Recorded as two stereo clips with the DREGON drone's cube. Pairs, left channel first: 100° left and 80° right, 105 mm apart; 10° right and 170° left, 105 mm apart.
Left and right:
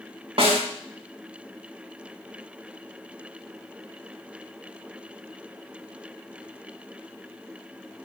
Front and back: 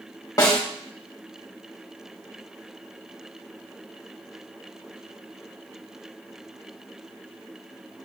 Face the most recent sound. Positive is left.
turn(degrees=-65)